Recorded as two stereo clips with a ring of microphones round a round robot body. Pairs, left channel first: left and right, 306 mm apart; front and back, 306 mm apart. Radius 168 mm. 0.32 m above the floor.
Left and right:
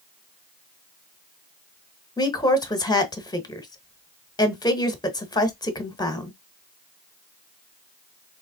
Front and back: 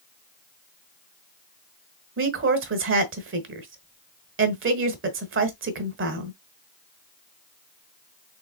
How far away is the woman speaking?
About 1.2 m.